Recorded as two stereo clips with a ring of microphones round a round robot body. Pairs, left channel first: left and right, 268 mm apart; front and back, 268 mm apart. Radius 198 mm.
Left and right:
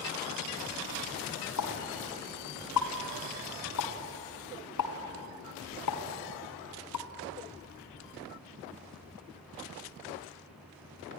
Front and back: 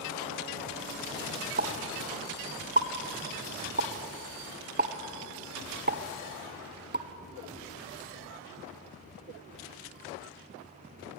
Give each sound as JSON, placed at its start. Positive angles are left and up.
{"t": 1.6, "sound": "a pop", "azimuth_deg": 125, "distance_m": 1.4}